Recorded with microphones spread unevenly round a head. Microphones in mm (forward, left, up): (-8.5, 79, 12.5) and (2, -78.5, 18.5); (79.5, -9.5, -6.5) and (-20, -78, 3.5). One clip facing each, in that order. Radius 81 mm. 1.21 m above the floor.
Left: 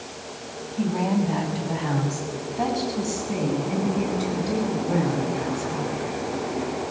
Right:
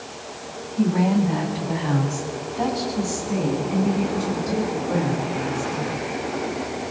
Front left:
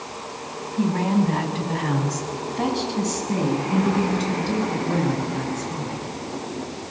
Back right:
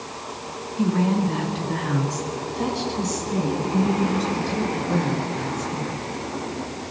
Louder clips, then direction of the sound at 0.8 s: Right 4 dB, even; 5° right.